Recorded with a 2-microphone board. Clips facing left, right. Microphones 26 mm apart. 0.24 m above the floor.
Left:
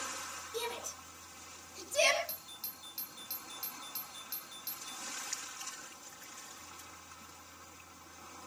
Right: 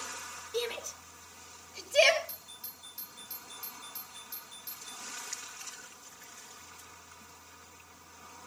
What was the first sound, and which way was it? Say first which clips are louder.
A shout: right 5 dB; 20° right (ahead or behind).